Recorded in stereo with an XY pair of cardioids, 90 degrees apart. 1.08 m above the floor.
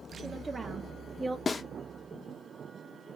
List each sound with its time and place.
0.2 s a woman speaking: 35° right, 1.4 m; by 1.4 s 25° right, 0.7 m
1.5 s a snare drum: 40° left, 0.8 m